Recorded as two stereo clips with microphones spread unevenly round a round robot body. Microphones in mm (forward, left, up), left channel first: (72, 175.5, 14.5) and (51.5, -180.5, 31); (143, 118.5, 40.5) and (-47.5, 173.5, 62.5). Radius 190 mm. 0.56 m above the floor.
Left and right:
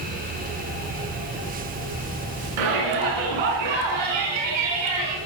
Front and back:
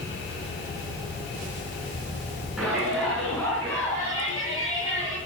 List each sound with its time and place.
2.6 s a shout: 105° right, 7.5 m; by 5.2 s 90° right, 6.5 m